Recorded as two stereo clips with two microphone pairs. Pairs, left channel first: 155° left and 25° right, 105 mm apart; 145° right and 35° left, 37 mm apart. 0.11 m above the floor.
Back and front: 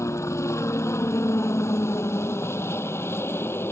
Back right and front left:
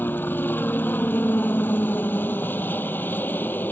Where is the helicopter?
145° right; by 3.7 s 140° right.